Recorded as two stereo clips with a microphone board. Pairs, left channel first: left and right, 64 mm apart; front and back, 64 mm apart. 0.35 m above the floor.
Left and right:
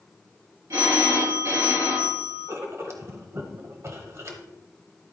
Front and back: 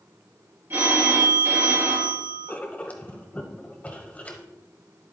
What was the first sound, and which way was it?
A phone ringing, 125° right.